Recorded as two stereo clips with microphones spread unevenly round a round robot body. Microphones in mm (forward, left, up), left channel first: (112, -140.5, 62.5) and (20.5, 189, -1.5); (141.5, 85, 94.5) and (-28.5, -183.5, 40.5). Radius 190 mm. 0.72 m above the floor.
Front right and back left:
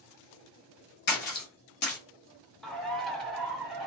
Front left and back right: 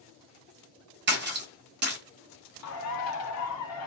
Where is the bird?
20° left, 1.0 m.